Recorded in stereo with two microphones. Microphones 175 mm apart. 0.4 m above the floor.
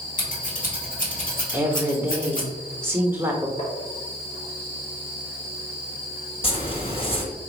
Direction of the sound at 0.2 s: 50° left (ahead or behind).